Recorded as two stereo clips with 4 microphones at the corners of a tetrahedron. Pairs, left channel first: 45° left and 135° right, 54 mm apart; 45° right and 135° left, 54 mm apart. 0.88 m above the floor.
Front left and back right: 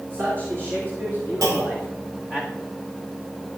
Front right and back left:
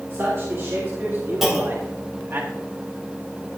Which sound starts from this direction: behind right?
A clunk, at 1.4 s.